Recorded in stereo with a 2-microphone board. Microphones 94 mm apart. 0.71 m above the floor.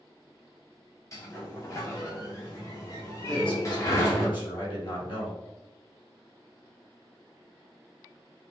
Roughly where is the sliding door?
Left.